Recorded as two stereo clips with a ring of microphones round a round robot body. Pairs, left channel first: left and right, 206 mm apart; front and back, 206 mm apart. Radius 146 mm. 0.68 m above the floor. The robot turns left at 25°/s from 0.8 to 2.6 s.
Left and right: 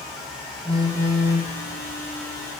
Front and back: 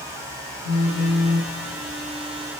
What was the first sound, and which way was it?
A phone buzzing, 20° right.